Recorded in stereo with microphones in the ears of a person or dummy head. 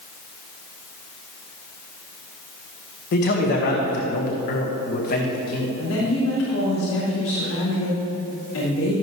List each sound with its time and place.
3.1 s a man speaking: 50° left (ahead or behind), 1.5 m
5.8 s a woman speaking: 90° left, 4 m